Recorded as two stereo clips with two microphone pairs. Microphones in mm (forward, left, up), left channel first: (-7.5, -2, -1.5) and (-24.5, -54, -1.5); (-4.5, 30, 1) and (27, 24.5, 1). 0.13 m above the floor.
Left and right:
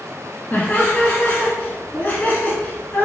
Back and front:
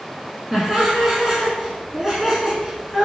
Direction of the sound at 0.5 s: 60° left.